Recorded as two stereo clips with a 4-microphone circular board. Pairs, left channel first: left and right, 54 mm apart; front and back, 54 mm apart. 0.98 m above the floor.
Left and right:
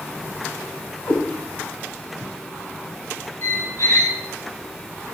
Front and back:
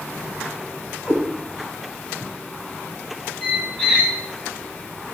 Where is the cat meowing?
45° left, 4.5 m.